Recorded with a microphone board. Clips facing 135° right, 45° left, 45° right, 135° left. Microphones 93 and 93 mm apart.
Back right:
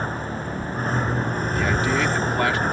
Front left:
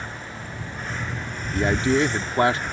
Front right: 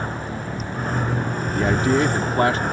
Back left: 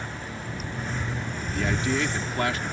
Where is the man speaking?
10° right.